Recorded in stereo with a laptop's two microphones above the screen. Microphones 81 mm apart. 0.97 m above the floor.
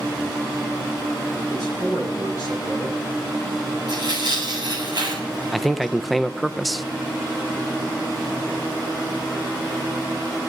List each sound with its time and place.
1.5 s a man speaking: 50° right (ahead or behind), 9.5 m
3.9 s tearing paper: 65° right (ahead or behind), 8.5 m
5.5 s a man speaking: centre (ahead or behind), 0.5 m